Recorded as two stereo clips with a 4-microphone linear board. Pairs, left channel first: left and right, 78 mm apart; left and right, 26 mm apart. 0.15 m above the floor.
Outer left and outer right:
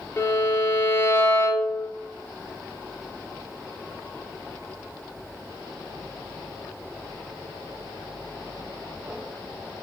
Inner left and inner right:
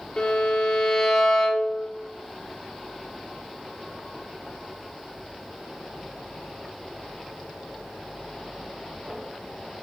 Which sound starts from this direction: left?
A violin, at 0.2 s.